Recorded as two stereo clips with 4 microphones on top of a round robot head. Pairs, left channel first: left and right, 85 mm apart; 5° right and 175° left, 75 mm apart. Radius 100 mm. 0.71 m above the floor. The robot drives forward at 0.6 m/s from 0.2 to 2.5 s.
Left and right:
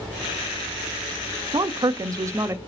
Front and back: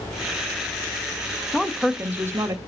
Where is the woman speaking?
90° right, 0.6 m; by 2.6 s 145° right, 0.8 m.